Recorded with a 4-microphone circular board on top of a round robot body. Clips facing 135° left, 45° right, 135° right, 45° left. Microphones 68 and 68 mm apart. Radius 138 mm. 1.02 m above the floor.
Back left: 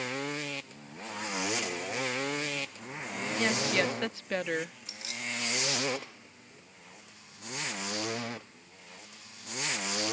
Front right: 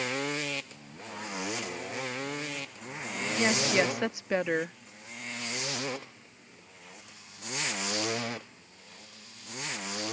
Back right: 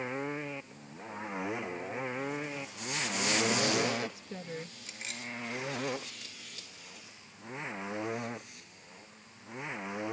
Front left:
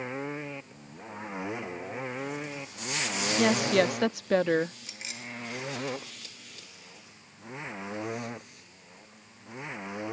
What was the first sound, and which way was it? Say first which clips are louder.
A woman speaking: front right 2 dB, front left 8 dB; 30° left.